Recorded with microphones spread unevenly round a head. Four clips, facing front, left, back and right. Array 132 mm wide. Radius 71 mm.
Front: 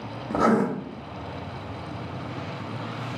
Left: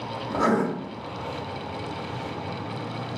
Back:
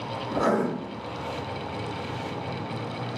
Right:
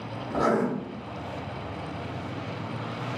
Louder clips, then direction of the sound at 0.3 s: Left 1 dB, front 3 dB; 15° left.